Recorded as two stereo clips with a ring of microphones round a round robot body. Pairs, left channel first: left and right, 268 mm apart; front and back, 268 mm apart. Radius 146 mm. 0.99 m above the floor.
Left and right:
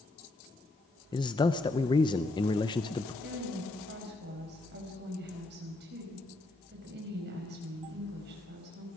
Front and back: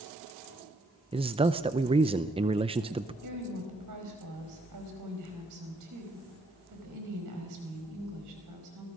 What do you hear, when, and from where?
1.1 s a man speaking: 140° left, 0.6 m
3.2 s a woman speaking: 150° right, 5 m